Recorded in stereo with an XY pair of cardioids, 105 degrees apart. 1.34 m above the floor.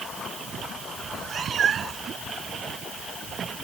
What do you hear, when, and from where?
1.0 s a cat meowing: 50° right